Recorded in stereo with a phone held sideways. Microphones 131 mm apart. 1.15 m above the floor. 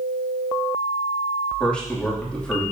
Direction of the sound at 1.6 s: 10° left (ahead or behind).